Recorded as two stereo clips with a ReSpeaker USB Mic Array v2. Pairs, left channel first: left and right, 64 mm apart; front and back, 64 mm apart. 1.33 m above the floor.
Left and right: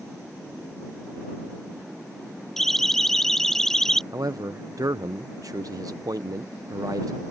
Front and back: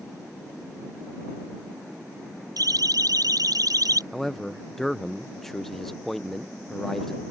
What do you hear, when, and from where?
2.6 s a siren: 175° left
4.1 s a man speaking: 85° right